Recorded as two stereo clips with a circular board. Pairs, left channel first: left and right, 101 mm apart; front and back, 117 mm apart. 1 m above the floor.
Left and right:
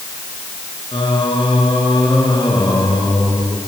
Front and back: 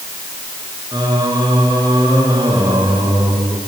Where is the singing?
125° left, 5 m.